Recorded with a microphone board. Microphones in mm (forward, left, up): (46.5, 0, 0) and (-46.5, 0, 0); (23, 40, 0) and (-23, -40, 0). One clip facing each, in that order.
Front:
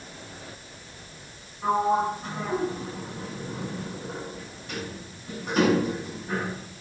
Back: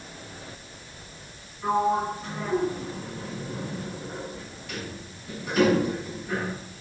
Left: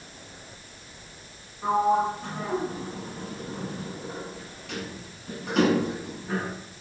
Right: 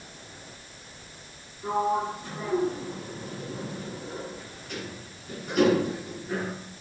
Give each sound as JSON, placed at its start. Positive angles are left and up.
{"t": 1.6, "sound": "a sliding door", "azimuth_deg": 60, "distance_m": 7.0}